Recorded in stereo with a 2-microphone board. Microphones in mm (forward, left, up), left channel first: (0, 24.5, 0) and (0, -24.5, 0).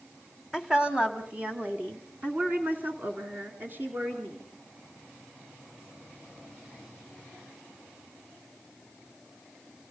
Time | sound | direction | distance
0.5 | a woman speaking | 10° right (ahead or behind) | 1.5 m